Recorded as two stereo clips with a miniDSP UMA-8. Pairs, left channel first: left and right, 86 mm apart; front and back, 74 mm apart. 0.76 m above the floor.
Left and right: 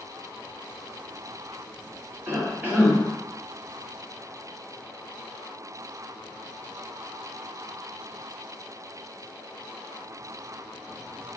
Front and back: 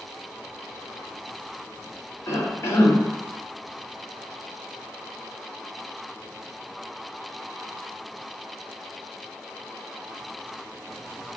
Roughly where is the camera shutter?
I don't hear a camera shutter.